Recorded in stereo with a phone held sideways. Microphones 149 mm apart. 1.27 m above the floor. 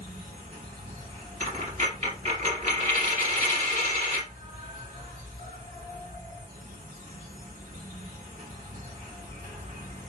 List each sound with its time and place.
0.0 s an insect: 60° right (ahead or behind), 1.7 m
1.4 s a dropped coin: 55° right (ahead or behind), 2 m